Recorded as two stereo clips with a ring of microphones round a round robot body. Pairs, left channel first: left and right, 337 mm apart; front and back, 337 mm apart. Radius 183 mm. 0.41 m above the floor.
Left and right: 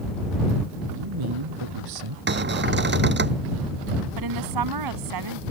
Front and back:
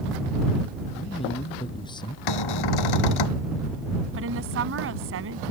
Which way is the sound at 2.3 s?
30° right.